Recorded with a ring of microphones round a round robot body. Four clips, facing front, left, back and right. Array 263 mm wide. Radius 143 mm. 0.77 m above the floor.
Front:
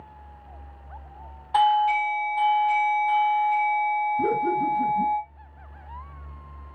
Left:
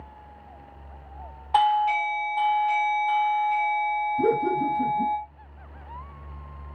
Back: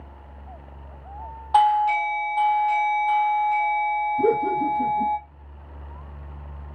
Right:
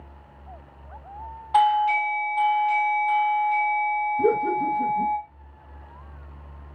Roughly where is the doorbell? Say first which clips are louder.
Right 2 dB, back 2 dB; behind left.